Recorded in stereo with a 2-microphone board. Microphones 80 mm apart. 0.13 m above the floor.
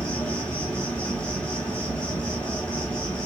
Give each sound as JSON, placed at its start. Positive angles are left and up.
{"t": 0.0, "sound": "an insect", "side_deg": 10, "distance_m": 1.4}